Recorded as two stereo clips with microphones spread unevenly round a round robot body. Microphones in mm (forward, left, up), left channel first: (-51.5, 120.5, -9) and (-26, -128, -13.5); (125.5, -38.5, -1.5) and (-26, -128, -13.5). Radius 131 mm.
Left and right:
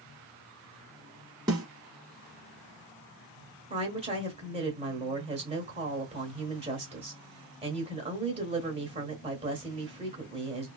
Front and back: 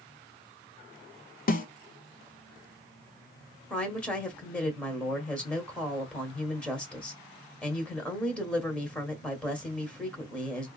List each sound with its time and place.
1.5 s a snare drum: 10° right, 1.1 m
3.7 s a woman speaking: 55° right, 1.4 m